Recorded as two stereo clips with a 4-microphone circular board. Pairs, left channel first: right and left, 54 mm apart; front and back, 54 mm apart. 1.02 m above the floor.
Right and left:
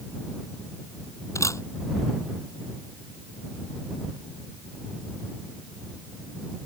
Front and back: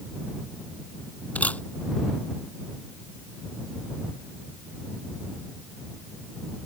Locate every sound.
1.4 s a camera shutter: 65° right